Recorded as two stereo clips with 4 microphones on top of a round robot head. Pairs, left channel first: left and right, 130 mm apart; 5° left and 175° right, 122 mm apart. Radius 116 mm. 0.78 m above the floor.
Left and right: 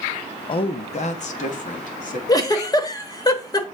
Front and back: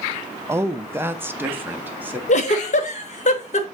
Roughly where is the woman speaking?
Behind left.